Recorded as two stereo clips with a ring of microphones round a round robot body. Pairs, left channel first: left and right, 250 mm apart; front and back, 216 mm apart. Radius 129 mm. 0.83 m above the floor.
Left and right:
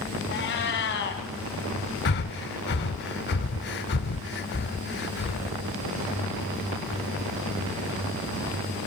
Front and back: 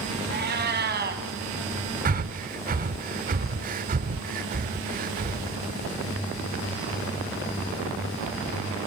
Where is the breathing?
135° left, 0.8 m.